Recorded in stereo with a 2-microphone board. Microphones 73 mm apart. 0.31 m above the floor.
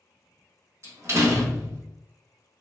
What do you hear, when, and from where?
0.8 s a door slam: 40° right (ahead or behind), 0.9 m